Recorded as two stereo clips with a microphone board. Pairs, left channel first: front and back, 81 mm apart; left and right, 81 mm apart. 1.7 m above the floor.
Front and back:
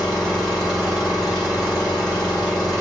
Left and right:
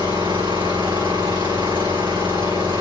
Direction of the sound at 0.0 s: 85° right.